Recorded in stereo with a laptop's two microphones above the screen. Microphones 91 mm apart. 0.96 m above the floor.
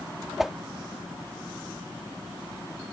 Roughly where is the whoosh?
Centre.